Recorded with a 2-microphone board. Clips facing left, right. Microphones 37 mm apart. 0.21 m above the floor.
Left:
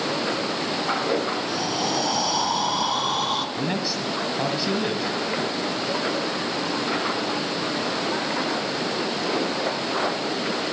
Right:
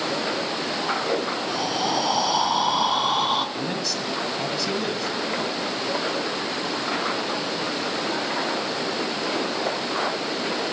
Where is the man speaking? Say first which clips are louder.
Left 1 dB; 20° left (ahead or behind), 1.4 m.